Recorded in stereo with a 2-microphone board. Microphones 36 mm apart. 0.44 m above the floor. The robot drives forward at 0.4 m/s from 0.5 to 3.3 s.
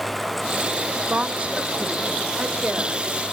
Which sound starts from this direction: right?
A woman speaking, at 1.1 s.